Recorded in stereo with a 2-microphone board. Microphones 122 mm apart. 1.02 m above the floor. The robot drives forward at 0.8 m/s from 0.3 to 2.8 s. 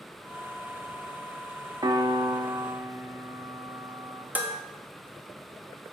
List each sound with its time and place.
1.8 s a piano: 35° right (ahead or behind), 0.6 m; by 4.2 s 30° right (ahead or behind), 0.7 m
4.3 s dishes clattering: 15° right (ahead or behind), 1.0 m